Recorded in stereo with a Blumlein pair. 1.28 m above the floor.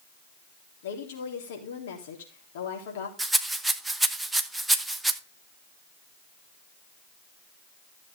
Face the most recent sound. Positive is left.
turn(degrees=-5)